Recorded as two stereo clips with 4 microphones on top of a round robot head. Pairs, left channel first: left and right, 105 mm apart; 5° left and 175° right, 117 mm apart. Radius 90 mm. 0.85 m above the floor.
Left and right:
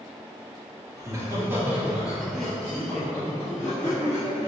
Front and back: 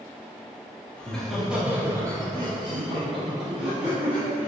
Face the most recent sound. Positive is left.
turn(degrees=155)